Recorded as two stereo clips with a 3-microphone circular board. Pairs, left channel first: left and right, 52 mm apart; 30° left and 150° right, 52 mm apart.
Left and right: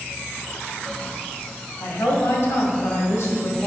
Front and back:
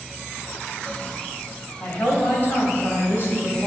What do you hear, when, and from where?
1.8 s a woman speaking: 70° left, 2.5 m